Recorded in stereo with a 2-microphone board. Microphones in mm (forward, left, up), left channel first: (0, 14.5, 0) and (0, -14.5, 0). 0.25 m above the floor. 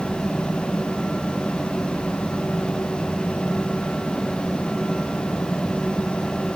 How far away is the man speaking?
No man speaking in this recording.